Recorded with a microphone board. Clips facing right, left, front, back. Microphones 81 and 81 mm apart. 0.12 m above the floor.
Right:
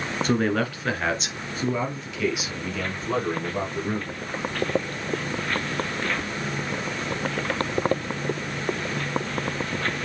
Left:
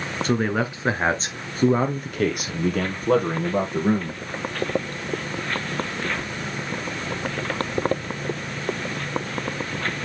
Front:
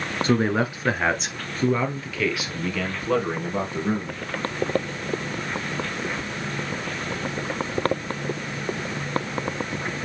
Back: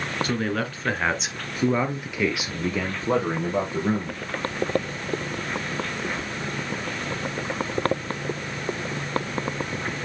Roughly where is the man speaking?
Ahead.